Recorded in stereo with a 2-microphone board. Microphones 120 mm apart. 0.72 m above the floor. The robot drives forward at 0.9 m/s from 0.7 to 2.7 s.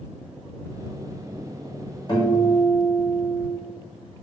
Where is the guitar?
40° left (ahead or behind), 3 m; by 3.6 s 35° left (ahead or behind), 3.5 m.